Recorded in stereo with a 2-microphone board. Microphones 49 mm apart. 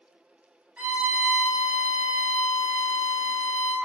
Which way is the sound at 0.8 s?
25° right (ahead or behind).